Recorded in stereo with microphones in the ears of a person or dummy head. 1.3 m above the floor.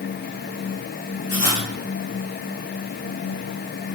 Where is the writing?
35° left (ahead or behind), 2.5 m.